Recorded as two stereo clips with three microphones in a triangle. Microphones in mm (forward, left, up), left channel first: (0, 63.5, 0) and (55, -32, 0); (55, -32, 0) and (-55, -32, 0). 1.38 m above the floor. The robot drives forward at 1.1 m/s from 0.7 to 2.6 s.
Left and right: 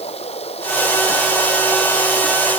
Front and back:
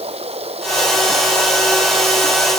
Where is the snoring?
I don't hear snoring.